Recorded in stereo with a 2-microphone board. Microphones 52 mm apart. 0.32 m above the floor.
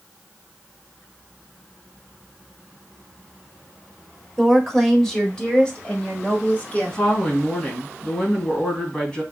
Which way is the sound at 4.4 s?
5° right (ahead or behind).